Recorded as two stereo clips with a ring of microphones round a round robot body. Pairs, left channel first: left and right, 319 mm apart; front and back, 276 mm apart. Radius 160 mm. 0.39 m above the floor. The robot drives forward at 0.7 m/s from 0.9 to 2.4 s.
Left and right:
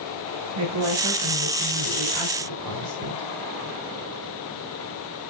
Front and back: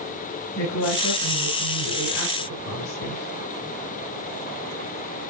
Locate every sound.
0.6 s a woman speaking: 50° right, 6 m; by 3.3 s 60° right, 5.5 m